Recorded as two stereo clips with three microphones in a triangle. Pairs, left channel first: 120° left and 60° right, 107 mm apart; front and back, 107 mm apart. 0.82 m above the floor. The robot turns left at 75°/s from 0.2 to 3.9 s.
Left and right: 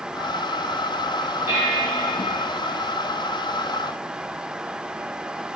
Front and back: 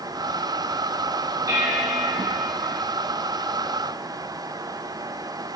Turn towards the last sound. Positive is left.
turn(degrees=50)